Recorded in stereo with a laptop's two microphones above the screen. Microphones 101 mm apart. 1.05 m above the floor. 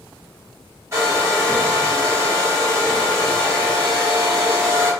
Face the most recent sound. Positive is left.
turn(degrees=-30)  # may be behind; listen again after turning